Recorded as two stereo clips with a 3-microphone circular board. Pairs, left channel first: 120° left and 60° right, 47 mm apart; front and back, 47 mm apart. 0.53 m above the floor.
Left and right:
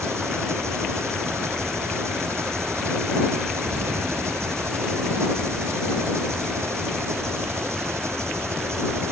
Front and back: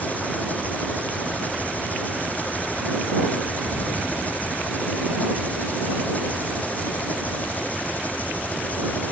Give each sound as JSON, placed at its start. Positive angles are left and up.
{"t": 0.0, "sound": "an engine running", "azimuth_deg": -55}
{"t": 3.6, "sound": "an explosion", "azimuth_deg": -5}